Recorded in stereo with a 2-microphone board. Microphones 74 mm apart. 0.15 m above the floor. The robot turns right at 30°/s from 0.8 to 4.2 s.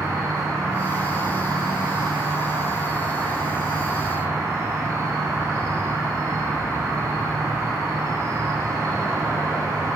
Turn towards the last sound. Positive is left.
turn(degrees=-40)